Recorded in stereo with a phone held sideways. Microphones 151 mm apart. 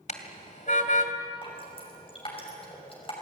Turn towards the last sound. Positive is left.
turn(degrees=35)  # may be behind; listen again after turning